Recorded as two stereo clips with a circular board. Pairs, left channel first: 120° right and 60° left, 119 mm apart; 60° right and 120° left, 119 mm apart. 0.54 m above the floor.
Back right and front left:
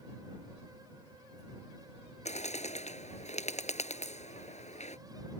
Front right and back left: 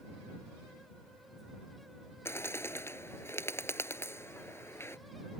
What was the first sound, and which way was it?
A bird, 130° right.